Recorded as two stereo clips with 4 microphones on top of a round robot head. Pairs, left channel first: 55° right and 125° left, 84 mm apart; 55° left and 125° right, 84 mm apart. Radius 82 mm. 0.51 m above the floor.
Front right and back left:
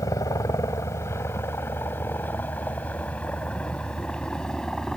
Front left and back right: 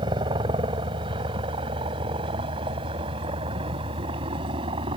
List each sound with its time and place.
0.0 s a helicopter: 105° right; by 5.0 s 140° right